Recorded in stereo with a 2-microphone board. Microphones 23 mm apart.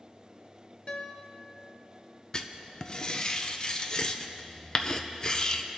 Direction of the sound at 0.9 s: 50° left (ahead or behind).